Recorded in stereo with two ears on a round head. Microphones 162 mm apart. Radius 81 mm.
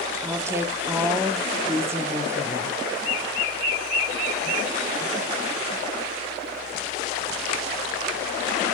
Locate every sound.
0.2 s a woman speaking: 15° right (ahead or behind), 1.1 m